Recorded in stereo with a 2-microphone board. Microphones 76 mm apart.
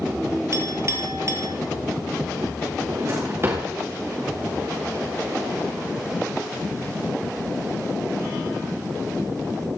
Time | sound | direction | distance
0.5 | a clink | 40° right (ahead or behind) | 1.8 m
2.9 | a drawer | 35° right (ahead or behind) | 2.5 m